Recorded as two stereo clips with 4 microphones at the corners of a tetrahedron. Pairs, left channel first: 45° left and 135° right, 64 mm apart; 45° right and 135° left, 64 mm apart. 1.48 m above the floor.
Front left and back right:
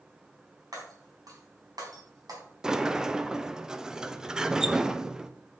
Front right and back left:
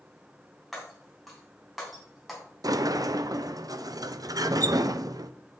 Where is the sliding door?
145° left, 0.5 m.